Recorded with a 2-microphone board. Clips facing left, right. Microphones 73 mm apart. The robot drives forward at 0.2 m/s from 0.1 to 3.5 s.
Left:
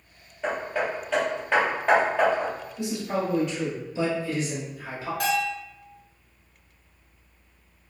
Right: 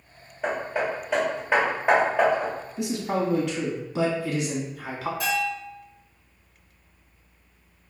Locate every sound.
0.4 s hammering: 10° right (ahead or behind), 1.1 m; by 2.5 s 15° right (ahead or behind), 1.0 m
2.8 s a man speaking: 80° right, 0.7 m; by 5.1 s 70° right (ahead or behind), 0.8 m
5.2 s a bell: 65° left (ahead or behind), 1.0 m